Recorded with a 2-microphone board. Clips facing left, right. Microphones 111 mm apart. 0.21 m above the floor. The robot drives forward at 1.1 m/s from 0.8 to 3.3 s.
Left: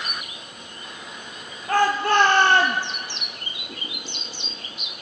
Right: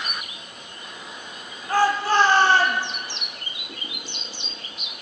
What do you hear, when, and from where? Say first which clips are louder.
1.7 s a shout: even; 60° left (ahead or behind), 5.5 m; by 2.8 s 70° left (ahead or behind), 5 m